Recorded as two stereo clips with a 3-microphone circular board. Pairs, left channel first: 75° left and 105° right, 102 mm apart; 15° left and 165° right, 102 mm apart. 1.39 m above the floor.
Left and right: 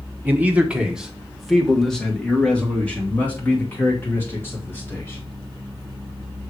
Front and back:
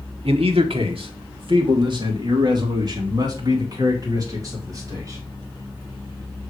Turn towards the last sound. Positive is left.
turn(degrees=140)